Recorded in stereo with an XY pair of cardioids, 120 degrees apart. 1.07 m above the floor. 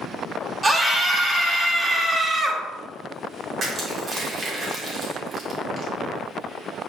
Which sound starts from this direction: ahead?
A scream, at 0.6 s.